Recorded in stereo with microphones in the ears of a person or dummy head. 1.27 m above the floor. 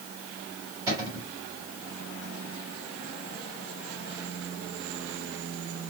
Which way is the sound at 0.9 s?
20° right (ahead or behind).